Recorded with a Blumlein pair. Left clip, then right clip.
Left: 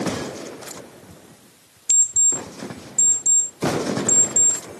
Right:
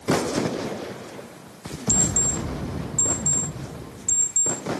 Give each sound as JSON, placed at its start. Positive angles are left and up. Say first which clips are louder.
{"t": 1.9, "sound": "an alarm clock", "louder": "left 4 dB", "azimuth_deg": 10, "distance_m": 2.0}